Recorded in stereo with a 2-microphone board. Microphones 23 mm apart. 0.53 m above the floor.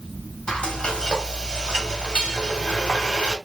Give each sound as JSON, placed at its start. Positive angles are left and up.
{"t": 0.5, "sound": "frying", "side_deg": 40, "distance_m": 2.0}